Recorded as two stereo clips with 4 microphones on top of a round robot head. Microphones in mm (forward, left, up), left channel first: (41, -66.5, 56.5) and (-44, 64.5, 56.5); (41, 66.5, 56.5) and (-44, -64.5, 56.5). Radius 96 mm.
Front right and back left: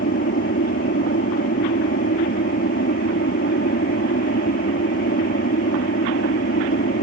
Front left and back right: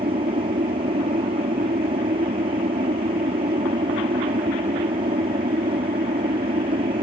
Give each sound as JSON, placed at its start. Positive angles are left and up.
{"t": 0.0, "sound": "an aircraft", "azimuth_deg": -70}